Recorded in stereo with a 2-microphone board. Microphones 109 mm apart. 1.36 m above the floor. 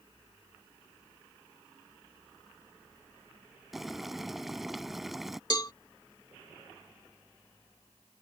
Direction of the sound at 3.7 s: Centre (ahead or behind).